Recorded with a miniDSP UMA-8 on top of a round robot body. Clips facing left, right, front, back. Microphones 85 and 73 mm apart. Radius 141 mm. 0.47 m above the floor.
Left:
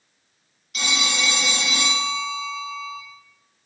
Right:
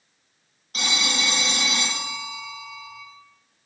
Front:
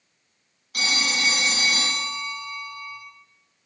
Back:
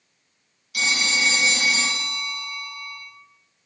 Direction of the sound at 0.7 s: 45° right.